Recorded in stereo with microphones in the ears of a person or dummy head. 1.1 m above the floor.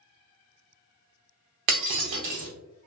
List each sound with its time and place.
1.7 s breaking glass: 35° right (ahead or behind), 0.7 m